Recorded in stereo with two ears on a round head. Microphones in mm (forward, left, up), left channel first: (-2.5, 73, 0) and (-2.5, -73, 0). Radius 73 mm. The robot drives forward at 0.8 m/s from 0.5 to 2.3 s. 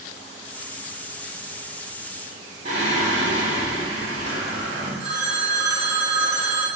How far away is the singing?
About 3 m.